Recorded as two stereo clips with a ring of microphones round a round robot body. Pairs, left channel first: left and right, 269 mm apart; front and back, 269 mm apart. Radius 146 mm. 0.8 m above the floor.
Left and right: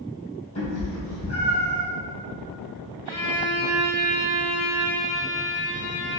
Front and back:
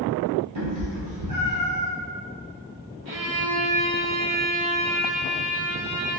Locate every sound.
0.6 s a cat meowing: 160° left, 1.8 m
3.0 s a violin: 155° left, 1.2 m